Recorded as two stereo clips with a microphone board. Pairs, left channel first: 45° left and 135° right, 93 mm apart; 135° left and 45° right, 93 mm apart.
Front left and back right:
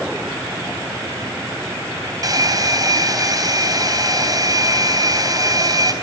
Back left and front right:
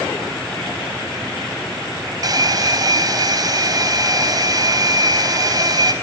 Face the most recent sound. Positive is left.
turn(degrees=-90)